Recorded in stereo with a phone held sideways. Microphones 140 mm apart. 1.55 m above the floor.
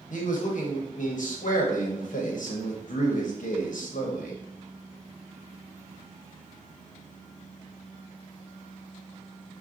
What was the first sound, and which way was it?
A man speaking, 70° left (ahead or behind).